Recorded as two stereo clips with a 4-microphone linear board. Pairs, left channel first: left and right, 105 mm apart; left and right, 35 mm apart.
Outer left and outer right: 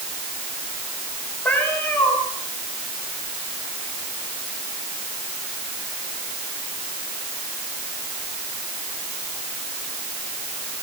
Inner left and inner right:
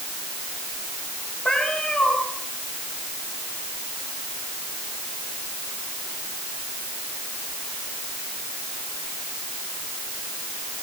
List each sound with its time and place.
1.4 s a cat meowing: 15° left (ahead or behind), 5 m